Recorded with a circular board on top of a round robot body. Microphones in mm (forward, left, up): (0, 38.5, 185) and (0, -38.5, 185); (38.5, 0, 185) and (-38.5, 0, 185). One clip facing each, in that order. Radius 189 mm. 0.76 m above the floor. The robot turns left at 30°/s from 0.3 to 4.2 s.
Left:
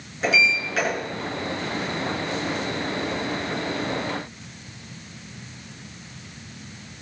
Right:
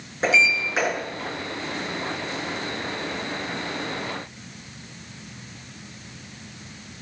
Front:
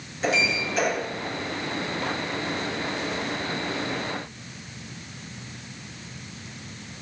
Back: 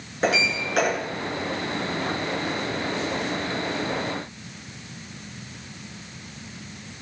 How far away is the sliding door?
About 9.5 m.